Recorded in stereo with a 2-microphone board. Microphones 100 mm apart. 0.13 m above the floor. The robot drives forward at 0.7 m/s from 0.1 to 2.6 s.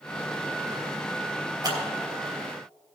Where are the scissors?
45° right (ahead or behind), 3 m.